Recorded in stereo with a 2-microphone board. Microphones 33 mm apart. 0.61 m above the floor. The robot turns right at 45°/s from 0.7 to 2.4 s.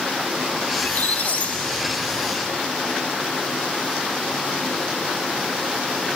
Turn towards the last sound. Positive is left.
turn(degrees=160)